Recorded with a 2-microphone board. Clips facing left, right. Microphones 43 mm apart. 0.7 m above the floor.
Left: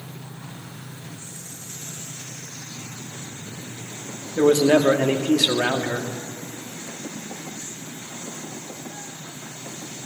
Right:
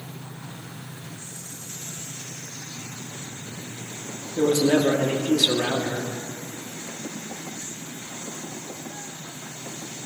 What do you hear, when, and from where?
4.4 s a man speaking: 60° left (ahead or behind), 0.9 m